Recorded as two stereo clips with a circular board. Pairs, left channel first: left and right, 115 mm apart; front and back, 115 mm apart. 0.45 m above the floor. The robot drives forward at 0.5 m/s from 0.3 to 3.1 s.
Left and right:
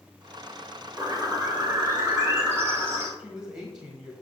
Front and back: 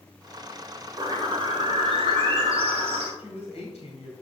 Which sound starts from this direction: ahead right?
A woman speaking, at 3.2 s.